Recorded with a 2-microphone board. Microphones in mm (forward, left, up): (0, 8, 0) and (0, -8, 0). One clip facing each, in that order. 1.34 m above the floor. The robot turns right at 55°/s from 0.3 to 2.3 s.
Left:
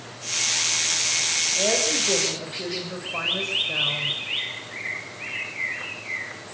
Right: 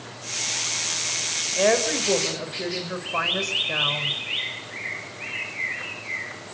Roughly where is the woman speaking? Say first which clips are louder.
Right 5 dB; right.